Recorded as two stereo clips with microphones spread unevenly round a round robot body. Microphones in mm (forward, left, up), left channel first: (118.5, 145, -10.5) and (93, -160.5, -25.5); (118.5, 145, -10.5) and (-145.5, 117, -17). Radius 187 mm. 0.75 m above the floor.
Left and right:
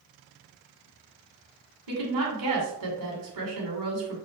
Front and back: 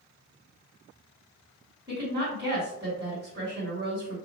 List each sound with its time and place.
1.9 s a woman speaking: 100° right, 2 m